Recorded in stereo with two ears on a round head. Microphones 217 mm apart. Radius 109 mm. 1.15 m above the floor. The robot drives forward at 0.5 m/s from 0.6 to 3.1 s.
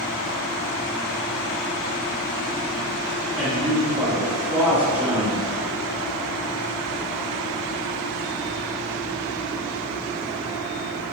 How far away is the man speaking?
About 1.9 m.